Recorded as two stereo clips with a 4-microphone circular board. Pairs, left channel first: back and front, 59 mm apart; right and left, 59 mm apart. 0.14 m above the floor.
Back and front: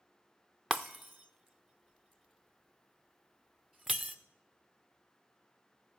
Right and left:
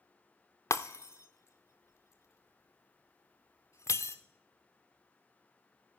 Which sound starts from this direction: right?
Breaking glass, at 0.7 s.